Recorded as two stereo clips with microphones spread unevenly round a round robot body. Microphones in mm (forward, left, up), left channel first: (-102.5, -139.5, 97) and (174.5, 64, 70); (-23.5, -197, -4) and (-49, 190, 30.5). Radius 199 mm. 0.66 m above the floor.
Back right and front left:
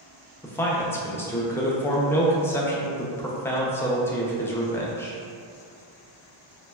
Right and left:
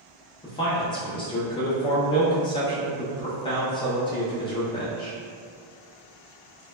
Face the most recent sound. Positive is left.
turn(degrees=-55)